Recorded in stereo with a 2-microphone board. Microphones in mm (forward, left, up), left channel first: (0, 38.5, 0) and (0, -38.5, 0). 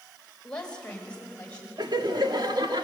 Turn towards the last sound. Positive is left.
turn(degrees=-70)  # may be behind; listen again after turning